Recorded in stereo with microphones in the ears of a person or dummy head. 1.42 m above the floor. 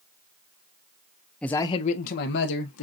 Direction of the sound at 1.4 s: 5° left (ahead or behind).